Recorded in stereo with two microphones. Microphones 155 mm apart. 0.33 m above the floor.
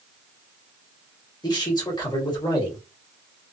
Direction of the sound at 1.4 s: 30° left (ahead or behind).